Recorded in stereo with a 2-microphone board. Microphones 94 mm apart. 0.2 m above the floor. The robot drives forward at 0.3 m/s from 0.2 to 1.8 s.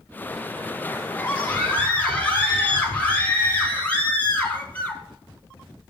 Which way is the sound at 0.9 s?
15° left (ahead or behind).